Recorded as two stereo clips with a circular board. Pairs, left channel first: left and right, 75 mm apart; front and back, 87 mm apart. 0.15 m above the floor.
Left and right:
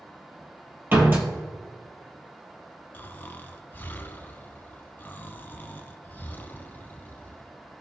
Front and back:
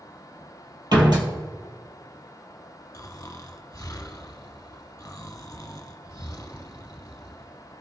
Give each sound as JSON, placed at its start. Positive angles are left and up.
{"t": 0.9, "sound": "a door slam", "azimuth_deg": -150, "distance_m": 2.5}
{"t": 2.9, "sound": "snoring", "azimuth_deg": 35, "distance_m": 0.9}